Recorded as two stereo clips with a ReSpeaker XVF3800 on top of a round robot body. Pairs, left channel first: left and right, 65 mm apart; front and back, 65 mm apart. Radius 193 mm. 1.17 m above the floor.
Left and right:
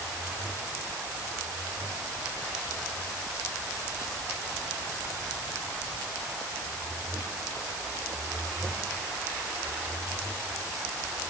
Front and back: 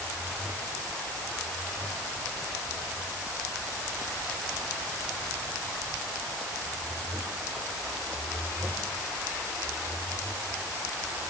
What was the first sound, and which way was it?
Only background noise.